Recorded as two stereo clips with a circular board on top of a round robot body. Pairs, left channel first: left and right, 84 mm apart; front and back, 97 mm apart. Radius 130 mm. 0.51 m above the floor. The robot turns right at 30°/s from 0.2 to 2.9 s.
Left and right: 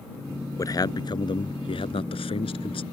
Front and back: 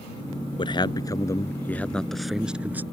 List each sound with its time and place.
0.6 s a man speaking: 40° left; by 2.8 s 105° left